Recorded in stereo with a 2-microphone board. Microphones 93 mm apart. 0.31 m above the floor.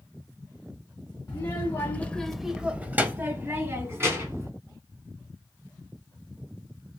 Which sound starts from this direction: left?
A child speaking, at 1.3 s.